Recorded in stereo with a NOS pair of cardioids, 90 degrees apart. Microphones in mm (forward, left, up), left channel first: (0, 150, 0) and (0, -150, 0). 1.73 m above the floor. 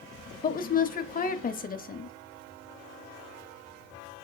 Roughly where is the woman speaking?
Ahead left.